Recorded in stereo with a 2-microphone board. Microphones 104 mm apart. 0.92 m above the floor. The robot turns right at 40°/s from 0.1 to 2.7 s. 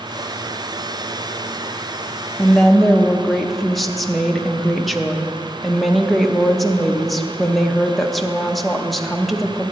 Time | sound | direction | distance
2.4 | a woman speaking | 10° left (ahead or behind) | 0.8 m